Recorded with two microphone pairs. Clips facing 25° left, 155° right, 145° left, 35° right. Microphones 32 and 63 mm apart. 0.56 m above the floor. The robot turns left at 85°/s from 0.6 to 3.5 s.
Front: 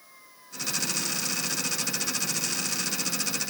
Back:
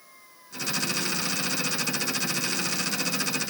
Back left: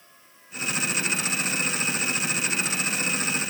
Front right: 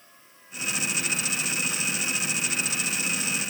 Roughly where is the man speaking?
No man speaking in this recording.